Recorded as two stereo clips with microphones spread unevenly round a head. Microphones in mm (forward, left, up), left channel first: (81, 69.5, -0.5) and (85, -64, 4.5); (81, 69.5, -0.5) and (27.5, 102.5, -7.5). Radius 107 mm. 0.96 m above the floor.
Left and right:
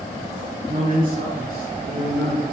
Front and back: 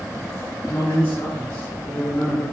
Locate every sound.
0.7 s a man speaking: 105° right, 1.6 m; by 2.4 s 120° right, 2.5 m